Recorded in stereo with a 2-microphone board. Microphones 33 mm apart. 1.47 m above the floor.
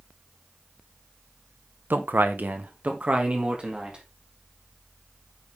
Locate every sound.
1.9 s a man speaking: 85° right, 1.0 m; by 4.0 s 30° right (ahead or behind), 2.5 m